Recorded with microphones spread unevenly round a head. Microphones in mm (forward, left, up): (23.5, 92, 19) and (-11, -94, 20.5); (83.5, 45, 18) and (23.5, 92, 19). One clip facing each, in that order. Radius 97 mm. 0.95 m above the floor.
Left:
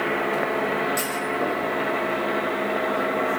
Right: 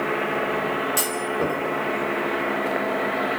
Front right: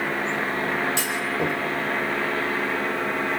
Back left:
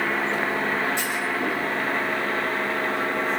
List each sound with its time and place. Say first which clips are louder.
1.0 s a clunk: right 1 dB, even; 50° right, 5.5 m